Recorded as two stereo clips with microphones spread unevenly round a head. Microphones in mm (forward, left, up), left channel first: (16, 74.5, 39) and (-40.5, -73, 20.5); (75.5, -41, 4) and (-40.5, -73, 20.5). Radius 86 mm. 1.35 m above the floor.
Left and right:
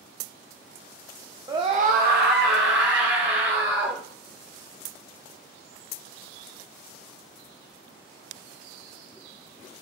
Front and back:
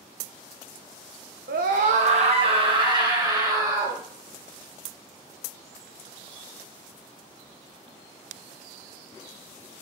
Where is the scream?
Straight behind, 0.8 m; by 4.0 s 100° right, 3 m.